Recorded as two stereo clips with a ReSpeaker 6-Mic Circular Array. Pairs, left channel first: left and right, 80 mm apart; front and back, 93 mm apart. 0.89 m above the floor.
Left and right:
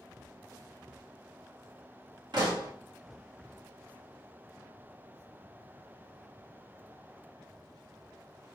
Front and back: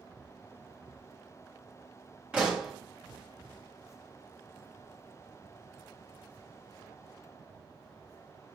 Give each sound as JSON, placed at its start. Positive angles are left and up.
{"t": 2.3, "sound": "a pop", "azimuth_deg": -105, "distance_m": 1.5}